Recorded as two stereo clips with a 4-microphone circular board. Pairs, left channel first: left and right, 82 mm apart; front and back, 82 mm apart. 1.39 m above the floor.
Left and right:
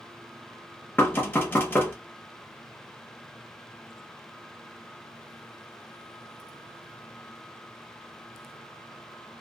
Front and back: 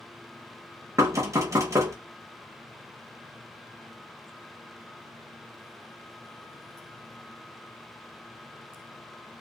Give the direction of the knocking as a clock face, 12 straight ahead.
7 o'clock.